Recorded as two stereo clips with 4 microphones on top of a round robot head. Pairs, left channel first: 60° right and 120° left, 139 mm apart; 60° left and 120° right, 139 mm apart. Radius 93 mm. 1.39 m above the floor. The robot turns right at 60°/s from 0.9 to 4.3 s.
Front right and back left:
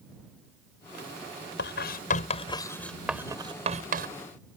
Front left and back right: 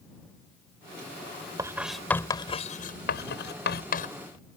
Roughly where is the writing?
Ahead right.